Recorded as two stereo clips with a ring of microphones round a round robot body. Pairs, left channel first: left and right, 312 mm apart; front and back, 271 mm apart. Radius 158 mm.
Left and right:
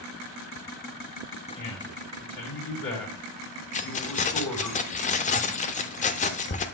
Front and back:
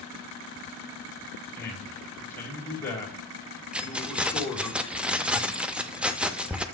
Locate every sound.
1.6 s a man speaking: 80° left, 3.5 m
3.7 s keys jangling: 100° left, 0.6 m